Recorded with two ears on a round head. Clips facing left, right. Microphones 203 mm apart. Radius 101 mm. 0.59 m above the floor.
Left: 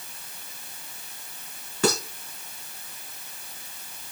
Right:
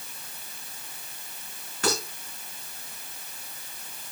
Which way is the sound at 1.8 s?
70° left (ahead or behind).